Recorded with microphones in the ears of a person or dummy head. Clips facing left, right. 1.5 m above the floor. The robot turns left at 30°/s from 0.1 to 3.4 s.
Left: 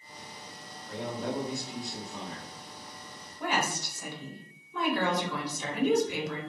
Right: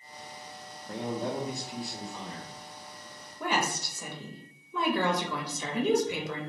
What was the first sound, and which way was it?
A man speaking, 140° right.